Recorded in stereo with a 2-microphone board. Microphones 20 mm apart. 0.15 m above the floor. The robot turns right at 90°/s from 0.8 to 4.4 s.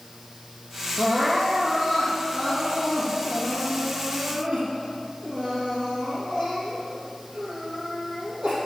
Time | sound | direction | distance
1.0 | crying | 45° right | 3.5 m